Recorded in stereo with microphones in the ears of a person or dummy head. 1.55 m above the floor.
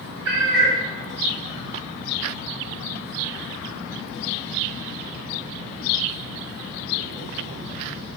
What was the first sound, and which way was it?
A cat meowing, 60° right (ahead or behind).